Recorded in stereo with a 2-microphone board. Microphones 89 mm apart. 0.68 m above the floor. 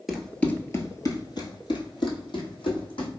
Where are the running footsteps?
5° right (ahead or behind), 0.7 m; by 3.1 s 75° left (ahead or behind), 2 m.